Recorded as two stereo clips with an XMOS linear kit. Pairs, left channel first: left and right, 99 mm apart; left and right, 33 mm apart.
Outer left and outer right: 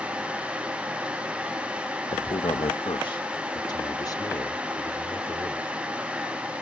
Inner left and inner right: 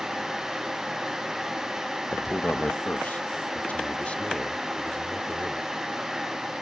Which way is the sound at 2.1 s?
70° left (ahead or behind).